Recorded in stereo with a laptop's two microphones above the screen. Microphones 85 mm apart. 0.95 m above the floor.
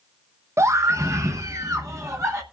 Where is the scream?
35° right (ahead or behind), 0.5 m.